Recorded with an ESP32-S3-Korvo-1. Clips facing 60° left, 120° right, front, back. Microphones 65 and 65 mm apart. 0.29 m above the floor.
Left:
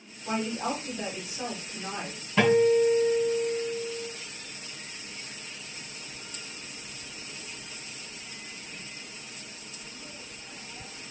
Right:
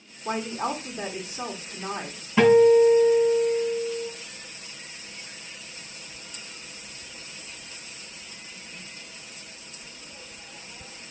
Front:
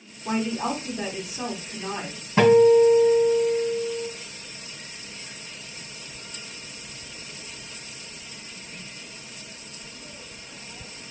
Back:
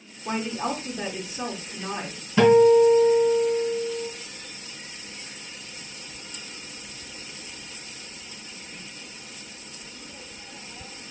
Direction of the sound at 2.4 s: 40° right.